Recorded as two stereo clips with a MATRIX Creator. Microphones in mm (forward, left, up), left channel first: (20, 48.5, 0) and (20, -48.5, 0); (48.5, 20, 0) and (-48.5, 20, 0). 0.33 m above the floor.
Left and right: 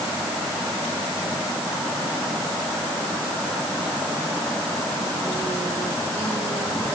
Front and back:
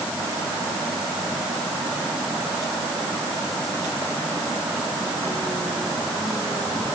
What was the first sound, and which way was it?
Only background noise.